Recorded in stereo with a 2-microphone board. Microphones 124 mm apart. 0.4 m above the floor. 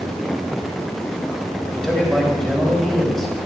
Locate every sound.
1.7 s a man speaking: 5° left (ahead or behind), 2 m